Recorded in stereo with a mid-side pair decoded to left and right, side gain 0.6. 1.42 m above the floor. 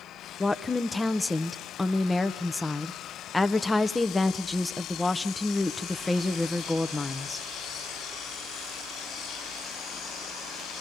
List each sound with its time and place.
0.4 s a woman speaking: 10° left, 0.7 m